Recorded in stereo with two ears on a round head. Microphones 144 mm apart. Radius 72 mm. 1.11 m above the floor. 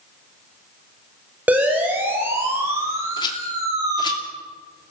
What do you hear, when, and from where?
1.5 s a siren: 10° right (ahead or behind), 6 m; by 4.2 s 25° right (ahead or behind), 6 m
3.2 s a rattle: 30° left (ahead or behind), 2.5 m